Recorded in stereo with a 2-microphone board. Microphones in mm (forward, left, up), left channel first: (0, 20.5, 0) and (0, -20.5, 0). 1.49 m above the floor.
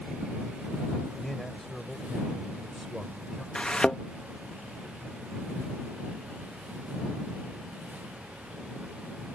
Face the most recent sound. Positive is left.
turn(degrees=25)  # may be behind; listen again after turning